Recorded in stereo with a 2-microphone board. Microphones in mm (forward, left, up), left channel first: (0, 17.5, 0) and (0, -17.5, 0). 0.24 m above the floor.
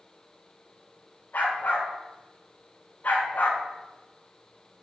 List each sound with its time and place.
1.3 s a dog barking: 75° left (ahead or behind), 5.5 m; by 3.6 s 65° left (ahead or behind), 4.5 m